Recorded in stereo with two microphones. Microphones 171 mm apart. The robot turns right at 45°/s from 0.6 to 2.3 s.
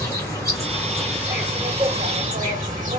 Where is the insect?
160° left, 2 m; by 3.0 s 125° right, 2 m.